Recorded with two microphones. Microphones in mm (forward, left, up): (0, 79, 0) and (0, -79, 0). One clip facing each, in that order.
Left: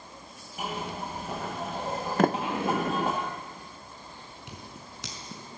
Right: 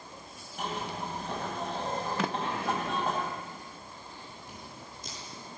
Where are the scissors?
80° left, 5 m.